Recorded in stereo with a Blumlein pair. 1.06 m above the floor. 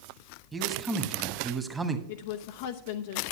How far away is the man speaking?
About 1.3 m.